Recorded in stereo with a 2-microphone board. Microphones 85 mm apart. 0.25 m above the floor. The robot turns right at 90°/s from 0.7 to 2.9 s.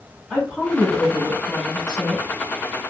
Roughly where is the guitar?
I don't hear a guitar.